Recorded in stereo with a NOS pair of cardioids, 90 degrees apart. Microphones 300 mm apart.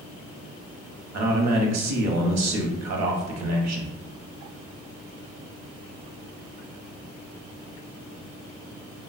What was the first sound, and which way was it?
A man speaking, 60° right.